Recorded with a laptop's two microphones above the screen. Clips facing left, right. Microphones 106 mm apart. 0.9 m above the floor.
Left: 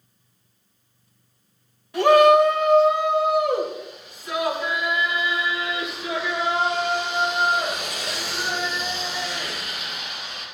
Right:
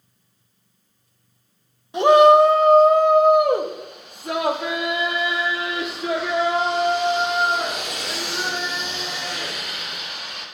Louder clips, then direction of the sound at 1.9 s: Right 2 dB; 20° right (ahead or behind).